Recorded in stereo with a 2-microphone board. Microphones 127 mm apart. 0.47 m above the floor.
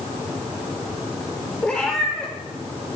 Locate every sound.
1.6 s a cat meowing: 10° left (ahead or behind), 5 m